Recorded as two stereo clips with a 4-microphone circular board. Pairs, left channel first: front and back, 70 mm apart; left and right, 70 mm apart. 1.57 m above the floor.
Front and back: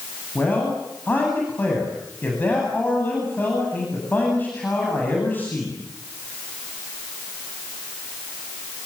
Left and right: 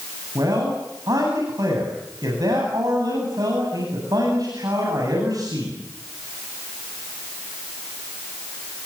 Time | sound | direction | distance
0.3 | a man speaking | 60° right | 9 m